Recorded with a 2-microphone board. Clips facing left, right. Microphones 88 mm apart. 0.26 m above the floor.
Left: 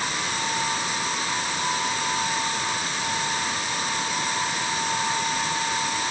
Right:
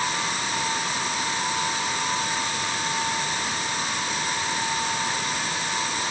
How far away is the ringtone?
I don't hear a ringtone.